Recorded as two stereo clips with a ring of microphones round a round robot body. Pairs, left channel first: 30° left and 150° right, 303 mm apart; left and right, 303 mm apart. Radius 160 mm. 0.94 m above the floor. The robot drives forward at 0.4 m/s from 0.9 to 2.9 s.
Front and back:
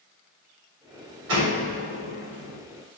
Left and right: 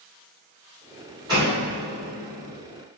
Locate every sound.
1.3 s a door slam: 165° right, 2.5 m; by 2.6 s 170° right, 3 m